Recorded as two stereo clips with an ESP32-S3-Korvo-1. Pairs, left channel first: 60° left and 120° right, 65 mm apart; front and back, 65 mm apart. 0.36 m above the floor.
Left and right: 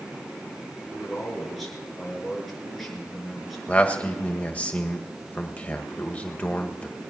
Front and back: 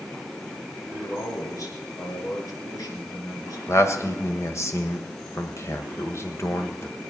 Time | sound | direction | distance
0.9 | a man speaking | 30° right | 5 m
3.7 | a man speaking | straight ahead | 1.8 m